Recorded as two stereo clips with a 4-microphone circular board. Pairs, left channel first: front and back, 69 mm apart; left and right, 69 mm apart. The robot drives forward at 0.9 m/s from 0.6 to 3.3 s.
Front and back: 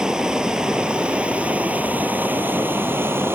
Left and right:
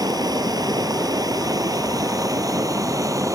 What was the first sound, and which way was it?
Running water, 100° right.